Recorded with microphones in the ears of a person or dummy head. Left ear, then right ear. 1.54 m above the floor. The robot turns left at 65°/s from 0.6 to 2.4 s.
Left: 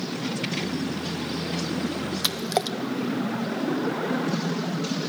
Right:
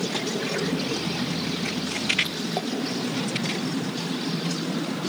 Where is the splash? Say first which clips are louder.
Left 3 dB; 70° left (ahead or behind), 0.7 m; by 2.8 s 75° left (ahead or behind), 0.7 m.